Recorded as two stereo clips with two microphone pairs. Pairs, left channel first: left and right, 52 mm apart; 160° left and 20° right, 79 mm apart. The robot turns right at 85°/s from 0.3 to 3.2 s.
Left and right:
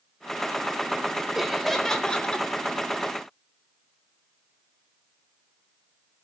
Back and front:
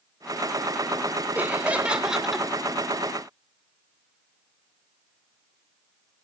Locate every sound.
1.4 s laughter: 20° right, 0.8 m; by 2.5 s 75° left, 0.8 m